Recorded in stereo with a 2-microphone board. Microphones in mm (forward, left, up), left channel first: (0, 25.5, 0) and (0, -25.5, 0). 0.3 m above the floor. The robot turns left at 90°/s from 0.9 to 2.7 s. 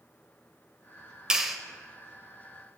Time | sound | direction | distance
1.3 | a clap | 15° right (ahead or behind) | 0.7 m